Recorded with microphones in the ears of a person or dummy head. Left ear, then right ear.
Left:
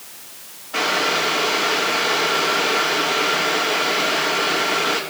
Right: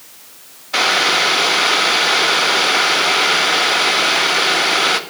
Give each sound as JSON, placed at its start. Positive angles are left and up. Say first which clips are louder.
{"t": 0.7, "sound": "boiling", "louder": "right 5 dB", "side_deg": -65, "distance_m": 0.9}